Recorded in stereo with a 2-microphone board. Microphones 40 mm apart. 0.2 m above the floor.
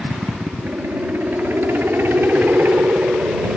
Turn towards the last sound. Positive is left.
turn(degrees=-60)  # may be behind; listen again after turning